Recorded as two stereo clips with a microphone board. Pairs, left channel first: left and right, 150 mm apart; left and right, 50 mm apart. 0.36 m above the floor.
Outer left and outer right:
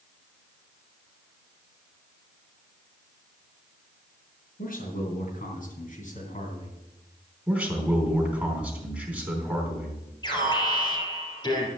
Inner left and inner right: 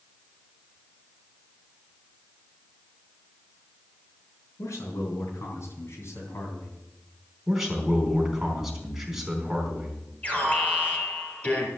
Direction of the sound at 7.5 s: 10° right (ahead or behind).